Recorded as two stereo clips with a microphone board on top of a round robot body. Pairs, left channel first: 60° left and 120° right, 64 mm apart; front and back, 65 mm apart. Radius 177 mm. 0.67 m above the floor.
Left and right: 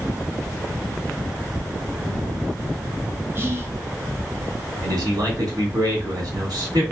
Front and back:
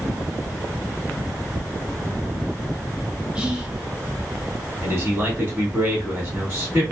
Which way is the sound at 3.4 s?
120° right.